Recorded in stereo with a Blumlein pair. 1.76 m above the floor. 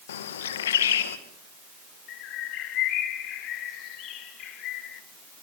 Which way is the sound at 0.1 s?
60° left.